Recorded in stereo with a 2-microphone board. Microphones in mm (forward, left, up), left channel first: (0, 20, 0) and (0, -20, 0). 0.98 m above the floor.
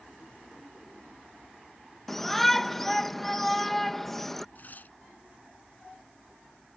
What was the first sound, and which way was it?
A shout, 10° left (ahead or behind).